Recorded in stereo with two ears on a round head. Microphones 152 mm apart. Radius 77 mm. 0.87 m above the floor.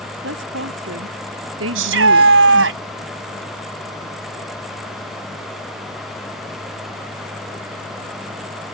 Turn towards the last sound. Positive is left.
turn(degrees=-80)